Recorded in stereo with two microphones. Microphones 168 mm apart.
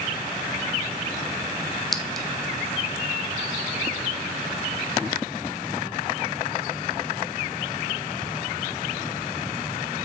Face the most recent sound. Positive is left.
turn(degrees=0)  # may be behind; listen again after turning